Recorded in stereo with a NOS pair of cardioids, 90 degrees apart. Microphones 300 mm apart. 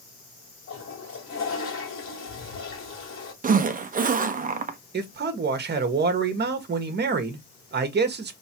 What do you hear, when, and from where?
0.7 s a toilet flushing: 45° left, 2 m
3.4 s a zipper: 25° right, 0.9 m
4.9 s a man speaking: 35° right, 1.4 m